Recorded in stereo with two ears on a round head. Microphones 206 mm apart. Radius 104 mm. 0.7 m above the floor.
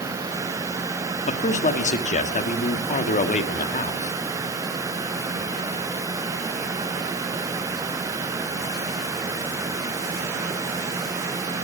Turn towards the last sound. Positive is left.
turn(degrees=35)  # may be behind; listen again after turning